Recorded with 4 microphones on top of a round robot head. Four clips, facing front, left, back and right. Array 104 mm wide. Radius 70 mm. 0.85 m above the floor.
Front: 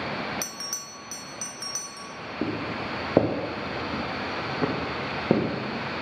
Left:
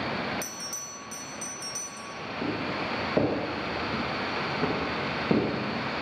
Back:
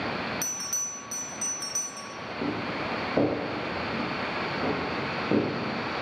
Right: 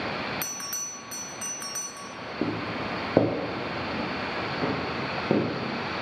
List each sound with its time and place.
0.4 s a bell: 60° right, 0.9 m
2.4 s footsteps: 50° right, 1.7 m; by 6.0 s 5° right, 4 m